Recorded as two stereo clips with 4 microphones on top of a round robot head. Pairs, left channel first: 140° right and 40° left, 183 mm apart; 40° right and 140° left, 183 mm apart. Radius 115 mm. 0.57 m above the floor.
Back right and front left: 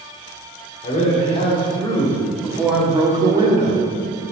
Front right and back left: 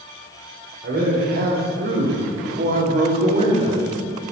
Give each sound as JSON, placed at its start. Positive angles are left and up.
{"t": 0.8, "sound": "a man speaking", "azimuth_deg": 170, "distance_m": 2.0}